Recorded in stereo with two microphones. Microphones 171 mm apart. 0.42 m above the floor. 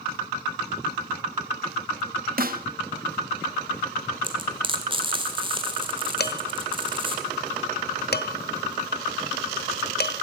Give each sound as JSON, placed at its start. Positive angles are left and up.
{"t": 2.4, "sound": "a snare drum", "side_deg": -60, "distance_m": 0.8}
{"t": 4.2, "sound": "frying", "side_deg": -30, "distance_m": 1.7}
{"t": 6.2, "sound": "dishes clattering", "side_deg": 70, "distance_m": 1.3}